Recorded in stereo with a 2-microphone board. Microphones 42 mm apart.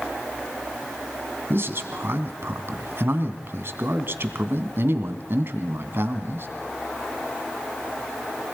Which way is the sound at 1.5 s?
55° right (ahead or behind).